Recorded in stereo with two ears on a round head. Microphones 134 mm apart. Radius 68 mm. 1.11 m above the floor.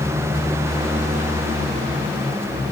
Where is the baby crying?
No baby crying in this recording.